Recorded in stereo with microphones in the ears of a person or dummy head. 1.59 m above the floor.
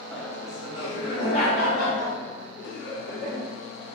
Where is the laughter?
5° left (ahead or behind), 0.8 m; by 3.4 s 75° left (ahead or behind), 2.5 m.